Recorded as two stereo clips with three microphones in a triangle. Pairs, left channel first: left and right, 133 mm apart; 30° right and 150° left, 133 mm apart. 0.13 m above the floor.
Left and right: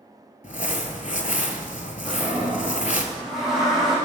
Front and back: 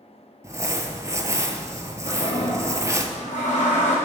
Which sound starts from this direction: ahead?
A toilet flushing, at 2.0 s.